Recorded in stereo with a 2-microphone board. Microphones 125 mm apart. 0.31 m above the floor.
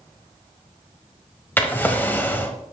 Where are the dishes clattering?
No dishes clattering in this recording.